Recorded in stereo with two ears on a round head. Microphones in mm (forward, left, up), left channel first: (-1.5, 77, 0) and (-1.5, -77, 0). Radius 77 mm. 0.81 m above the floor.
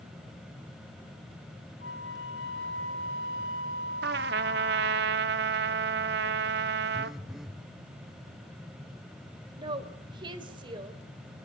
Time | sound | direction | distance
1.8 | a flute | 80° left | 7 m
4.0 | a trumpet | 65° right (ahead or behind) | 1.2 m
6.9 | a phone buzzing | centre (ahead or behind) | 1.0 m
9.6 | a woman speaking | 30° right (ahead or behind) | 3.5 m